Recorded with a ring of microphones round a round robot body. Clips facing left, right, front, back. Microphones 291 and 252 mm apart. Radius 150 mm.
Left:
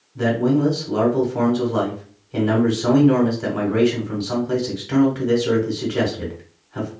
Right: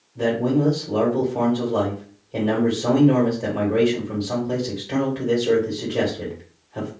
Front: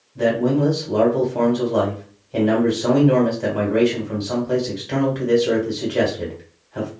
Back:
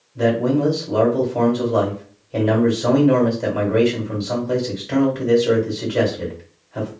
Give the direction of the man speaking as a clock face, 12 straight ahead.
8 o'clock.